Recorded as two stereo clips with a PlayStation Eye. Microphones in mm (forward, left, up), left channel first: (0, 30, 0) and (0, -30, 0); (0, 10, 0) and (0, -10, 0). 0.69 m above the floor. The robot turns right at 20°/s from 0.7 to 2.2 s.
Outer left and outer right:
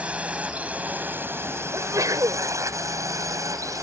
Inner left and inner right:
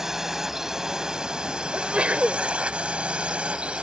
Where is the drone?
20° right (ahead or behind); by 3.8 s 60° right (ahead or behind).